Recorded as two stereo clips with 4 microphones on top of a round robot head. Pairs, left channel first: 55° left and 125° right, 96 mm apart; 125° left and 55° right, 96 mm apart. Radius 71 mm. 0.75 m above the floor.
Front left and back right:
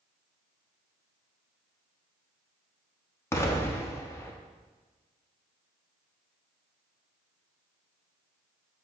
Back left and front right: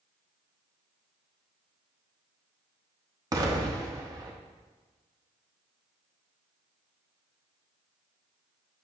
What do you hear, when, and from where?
3.3 s an explosion: 5° right, 1.3 m